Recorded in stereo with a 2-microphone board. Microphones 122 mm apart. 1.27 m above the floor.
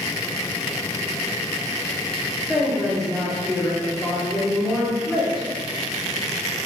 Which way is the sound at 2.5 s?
Centre (ahead or behind).